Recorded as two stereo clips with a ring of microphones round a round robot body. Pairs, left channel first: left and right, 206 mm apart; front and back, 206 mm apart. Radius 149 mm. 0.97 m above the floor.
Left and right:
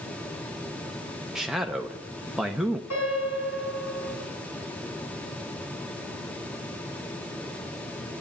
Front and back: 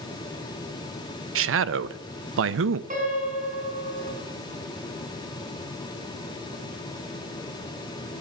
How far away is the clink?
No clink in this recording.